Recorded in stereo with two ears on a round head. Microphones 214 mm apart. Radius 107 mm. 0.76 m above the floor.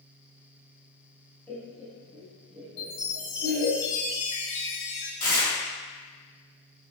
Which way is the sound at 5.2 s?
15° left (ahead or behind).